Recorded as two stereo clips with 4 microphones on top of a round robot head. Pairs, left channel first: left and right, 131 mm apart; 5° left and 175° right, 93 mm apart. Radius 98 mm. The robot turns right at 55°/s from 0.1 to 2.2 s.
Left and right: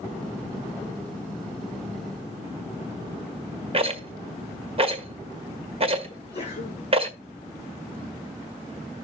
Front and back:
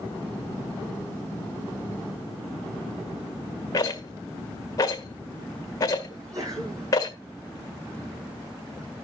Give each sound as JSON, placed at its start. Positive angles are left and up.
{"t": 3.7, "sound": "a rattle", "azimuth_deg": -50, "distance_m": 1.7}
{"t": 6.1, "sound": "a sneeze", "azimuth_deg": 135, "distance_m": 9.0}